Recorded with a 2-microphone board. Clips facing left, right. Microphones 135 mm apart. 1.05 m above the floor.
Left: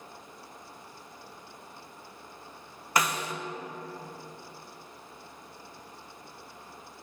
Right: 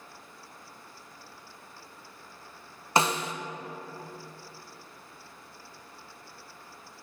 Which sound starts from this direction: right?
A snare drum, at 3.0 s.